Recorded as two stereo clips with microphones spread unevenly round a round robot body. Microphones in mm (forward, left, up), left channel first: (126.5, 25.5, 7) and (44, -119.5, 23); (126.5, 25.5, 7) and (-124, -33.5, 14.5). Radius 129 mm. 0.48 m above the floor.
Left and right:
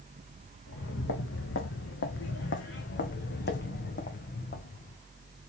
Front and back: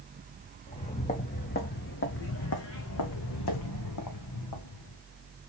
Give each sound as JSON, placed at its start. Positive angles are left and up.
{"t": 0.7, "sound": "footsteps", "azimuth_deg": 85, "distance_m": 1.9}